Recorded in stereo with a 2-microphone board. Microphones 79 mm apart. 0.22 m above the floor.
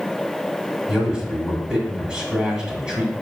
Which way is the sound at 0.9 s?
10° right (ahead or behind).